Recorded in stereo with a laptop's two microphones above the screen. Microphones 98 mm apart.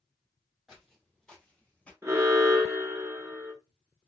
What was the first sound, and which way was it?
Footsteps, centre (ahead or behind).